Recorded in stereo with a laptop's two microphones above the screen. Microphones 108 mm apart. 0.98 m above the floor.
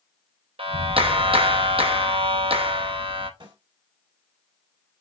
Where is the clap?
60° right (ahead or behind), 0.7 m.